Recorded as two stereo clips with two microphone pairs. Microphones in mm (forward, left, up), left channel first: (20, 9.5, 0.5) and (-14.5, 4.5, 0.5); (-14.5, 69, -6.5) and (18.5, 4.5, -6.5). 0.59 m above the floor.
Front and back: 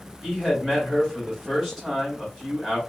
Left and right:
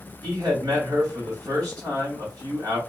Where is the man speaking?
90° right, 1.9 m.